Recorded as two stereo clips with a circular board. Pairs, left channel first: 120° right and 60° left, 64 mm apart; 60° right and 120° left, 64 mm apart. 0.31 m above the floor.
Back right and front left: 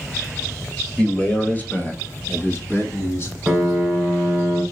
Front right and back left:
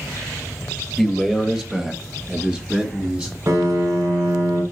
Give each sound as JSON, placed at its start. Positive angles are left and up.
{"t": 1.0, "sound": "a man speaking", "azimuth_deg": -155, "distance_m": 0.9}
{"t": 3.5, "sound": "a piano", "azimuth_deg": 150, "distance_m": 1.9}